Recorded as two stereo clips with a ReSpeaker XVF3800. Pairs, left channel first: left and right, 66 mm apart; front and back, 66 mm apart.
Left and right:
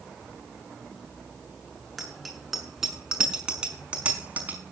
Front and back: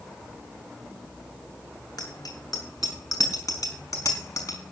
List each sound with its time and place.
2.0 s a bicycle bell: straight ahead, 7.5 m; by 4.6 s 30° right, 5.5 m